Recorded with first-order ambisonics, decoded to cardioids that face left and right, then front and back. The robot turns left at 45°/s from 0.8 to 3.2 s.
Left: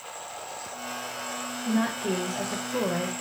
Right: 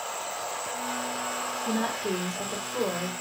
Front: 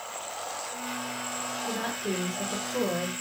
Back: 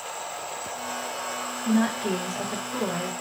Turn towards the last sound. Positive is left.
turn(degrees=85)